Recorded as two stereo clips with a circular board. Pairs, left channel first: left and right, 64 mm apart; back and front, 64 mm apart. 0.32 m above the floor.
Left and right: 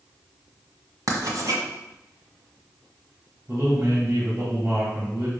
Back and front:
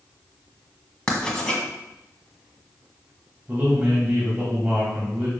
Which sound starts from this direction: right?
Writing, at 1.1 s.